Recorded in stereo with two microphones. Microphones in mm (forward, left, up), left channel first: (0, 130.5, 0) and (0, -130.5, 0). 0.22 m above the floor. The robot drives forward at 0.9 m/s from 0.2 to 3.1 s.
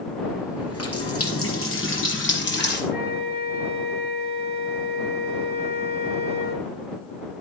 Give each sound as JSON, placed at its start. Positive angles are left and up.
{"t": 0.6, "sound": "a running tap", "side_deg": 65, "distance_m": 3.0}
{"t": 2.9, "sound": "a flute", "side_deg": 35, "distance_m": 3.0}